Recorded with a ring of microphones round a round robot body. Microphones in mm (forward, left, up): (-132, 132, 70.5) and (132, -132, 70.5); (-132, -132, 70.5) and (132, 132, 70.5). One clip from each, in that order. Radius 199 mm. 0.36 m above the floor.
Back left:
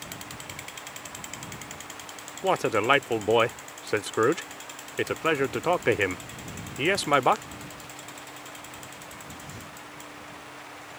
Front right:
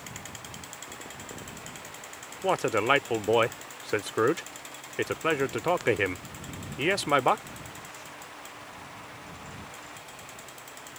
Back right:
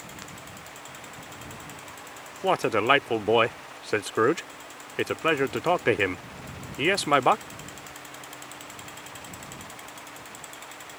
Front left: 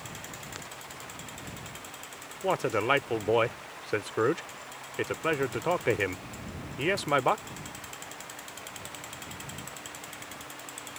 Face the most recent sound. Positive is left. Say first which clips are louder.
# back left 2 dB, back right 5 dB
turn(degrees=-145)